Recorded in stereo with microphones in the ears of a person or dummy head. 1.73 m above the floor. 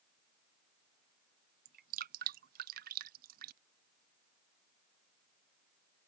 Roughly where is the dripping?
Right.